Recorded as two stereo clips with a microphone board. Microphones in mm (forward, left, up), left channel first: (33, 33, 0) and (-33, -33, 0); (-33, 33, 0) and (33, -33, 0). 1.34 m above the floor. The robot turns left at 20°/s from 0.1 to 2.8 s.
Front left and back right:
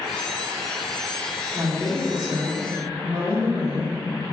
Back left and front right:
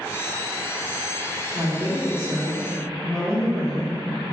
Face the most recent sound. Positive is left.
turn(degrees=-105)